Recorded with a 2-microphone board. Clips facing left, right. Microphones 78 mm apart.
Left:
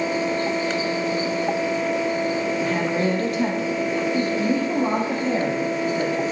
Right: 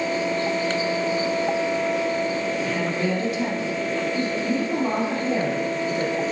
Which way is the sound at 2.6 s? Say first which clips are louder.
Left 2 dB; 40° left (ahead or behind).